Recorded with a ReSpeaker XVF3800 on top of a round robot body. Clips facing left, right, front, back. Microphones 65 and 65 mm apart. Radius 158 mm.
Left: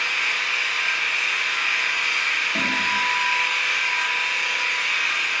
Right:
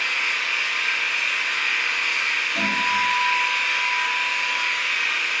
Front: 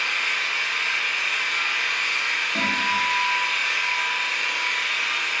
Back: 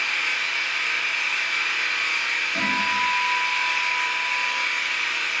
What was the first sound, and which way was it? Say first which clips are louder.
An engine running: even, even; 5° left.